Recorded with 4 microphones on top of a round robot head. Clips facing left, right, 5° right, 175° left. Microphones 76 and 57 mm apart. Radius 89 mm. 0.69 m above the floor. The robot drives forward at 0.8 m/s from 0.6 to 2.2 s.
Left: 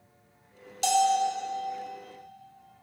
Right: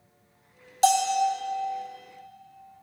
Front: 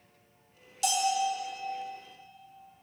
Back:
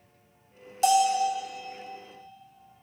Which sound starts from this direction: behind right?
A bell, at 0.8 s.